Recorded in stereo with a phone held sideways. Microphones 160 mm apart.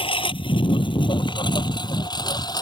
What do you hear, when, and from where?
0.0 s a lawn mower: 35° left (ahead or behind); by 2.6 s 25° left (ahead or behind)